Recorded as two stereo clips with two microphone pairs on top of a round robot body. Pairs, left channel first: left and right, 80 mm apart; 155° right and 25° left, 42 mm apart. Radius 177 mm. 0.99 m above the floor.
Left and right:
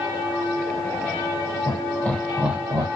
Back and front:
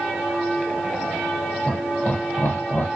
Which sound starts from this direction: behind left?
Laughter, at 1.7 s.